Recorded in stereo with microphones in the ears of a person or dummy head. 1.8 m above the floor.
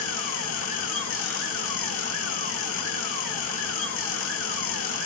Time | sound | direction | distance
0.0 | a fan | 80° left | 1.0 m